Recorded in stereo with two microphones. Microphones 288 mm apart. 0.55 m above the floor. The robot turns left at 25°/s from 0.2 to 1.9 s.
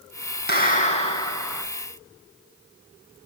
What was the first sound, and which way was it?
A clap, 35° left (ahead or behind).